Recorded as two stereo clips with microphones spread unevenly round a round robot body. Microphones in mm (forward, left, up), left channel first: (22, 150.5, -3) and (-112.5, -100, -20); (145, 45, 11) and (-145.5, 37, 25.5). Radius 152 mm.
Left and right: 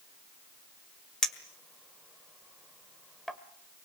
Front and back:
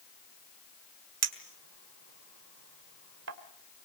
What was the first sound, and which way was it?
A clink, 150° left.